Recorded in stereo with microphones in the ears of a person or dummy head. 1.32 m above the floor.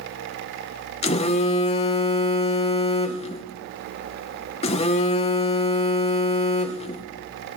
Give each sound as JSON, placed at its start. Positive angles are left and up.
{"t": 1.0, "sound": "a phone buzzing", "side_deg": 25, "distance_m": 0.7}